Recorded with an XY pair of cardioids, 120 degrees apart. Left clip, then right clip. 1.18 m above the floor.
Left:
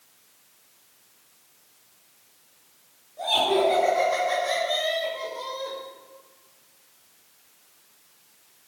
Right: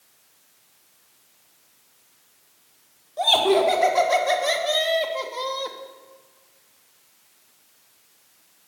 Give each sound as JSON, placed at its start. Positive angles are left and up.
{"t": 3.2, "sound": "laughter", "azimuth_deg": -70, "distance_m": 4.0}